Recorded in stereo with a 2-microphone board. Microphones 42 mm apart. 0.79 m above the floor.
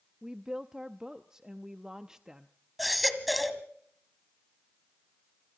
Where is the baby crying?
Centre (ahead or behind), 1.7 m.